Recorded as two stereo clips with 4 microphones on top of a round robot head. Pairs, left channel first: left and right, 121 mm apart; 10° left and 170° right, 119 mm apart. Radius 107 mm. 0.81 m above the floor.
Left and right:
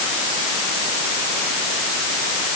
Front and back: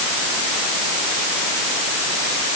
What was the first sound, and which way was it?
Only background noise.